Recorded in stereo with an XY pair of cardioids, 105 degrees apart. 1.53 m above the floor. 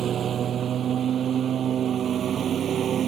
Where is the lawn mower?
50° right; by 3.1 s 55° right.